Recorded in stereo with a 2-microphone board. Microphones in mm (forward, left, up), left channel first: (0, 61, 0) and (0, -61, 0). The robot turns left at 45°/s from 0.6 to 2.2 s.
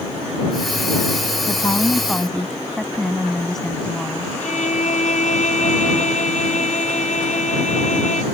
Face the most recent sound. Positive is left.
turn(degrees=80)